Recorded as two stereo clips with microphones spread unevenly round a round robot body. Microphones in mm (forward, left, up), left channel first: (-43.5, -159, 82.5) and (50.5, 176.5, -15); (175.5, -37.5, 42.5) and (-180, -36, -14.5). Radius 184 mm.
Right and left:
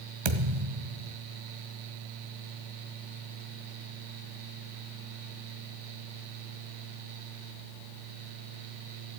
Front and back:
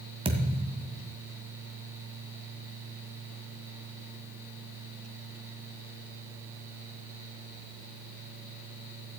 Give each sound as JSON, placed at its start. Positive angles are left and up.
{"t": 0.2, "sound": "a thud", "azimuth_deg": 100, "distance_m": 1.7}